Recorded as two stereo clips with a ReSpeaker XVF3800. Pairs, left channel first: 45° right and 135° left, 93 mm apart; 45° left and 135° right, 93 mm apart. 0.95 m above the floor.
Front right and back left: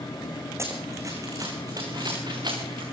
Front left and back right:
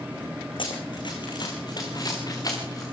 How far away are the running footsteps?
About 4.5 m.